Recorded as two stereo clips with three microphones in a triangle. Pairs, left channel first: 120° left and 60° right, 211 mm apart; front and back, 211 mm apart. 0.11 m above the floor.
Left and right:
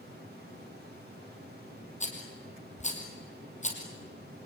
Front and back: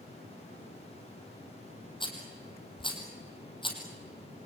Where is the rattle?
65° left, 4 m.